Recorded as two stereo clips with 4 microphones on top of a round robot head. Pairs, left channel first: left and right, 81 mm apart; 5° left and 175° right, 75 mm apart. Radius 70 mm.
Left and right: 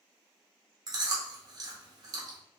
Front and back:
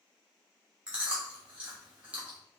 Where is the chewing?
105° right, 1.5 m.